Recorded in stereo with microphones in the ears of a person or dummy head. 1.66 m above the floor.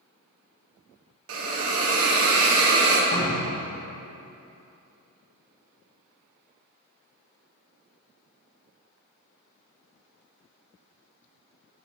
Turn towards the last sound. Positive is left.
turn(degrees=65)  # may be behind; listen again after turning